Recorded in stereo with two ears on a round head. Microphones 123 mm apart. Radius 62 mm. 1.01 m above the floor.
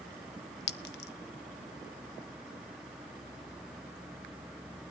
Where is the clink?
80° left, 0.7 m.